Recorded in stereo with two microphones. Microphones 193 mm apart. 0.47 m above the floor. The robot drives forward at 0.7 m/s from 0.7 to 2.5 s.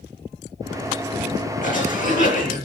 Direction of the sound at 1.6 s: 45° left (ahead or behind).